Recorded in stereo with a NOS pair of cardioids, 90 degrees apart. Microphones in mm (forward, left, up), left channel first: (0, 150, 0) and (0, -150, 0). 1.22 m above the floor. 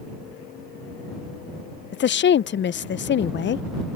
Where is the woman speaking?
40° left.